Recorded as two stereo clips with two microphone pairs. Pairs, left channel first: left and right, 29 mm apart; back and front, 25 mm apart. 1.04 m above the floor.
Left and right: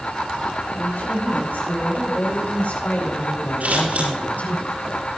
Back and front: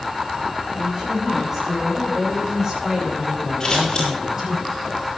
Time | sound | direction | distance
0.7 | a woman speaking | 75° left | 6 m
3.6 | scissors | 115° right | 8 m